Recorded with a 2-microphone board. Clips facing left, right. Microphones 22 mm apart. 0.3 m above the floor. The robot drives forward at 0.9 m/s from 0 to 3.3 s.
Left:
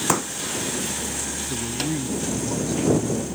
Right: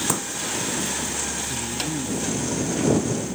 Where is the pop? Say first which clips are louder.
Left 3 dB; 25° left (ahead or behind); by 0.3 s 30° left (ahead or behind).